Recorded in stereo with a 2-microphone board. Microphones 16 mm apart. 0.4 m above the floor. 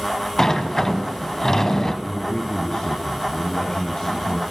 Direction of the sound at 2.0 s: 45° left (ahead or behind).